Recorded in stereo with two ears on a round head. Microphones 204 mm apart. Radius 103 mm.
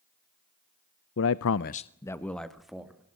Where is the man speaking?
55° left (ahead or behind), 0.7 m; by 3.2 s 5° right (ahead or behind), 2.5 m.